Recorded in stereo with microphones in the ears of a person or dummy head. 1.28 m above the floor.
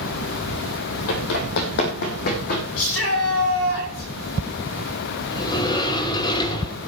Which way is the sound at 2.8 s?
80° left.